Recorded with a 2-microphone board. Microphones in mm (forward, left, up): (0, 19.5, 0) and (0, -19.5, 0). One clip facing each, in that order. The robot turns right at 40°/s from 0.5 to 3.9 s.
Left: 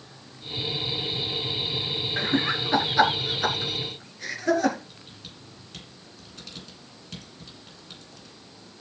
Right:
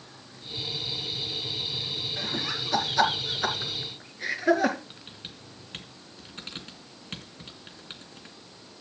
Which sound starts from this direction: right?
Typing on a keyboard, at 4.9 s.